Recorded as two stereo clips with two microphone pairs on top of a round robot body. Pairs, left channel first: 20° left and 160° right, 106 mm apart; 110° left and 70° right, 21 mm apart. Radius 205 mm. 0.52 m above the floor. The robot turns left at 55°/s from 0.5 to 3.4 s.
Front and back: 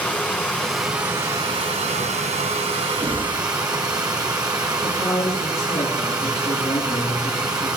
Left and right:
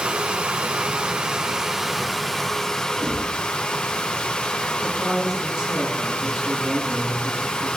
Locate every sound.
0.0 s running water: 55° right, 1.7 m; by 7.8 s 145° left, 1.7 m
3.0 s knocking: 105° right, 8 m; by 3.3 s 120° right, 8 m
4.8 s a man speaking: 45° right, 8.5 m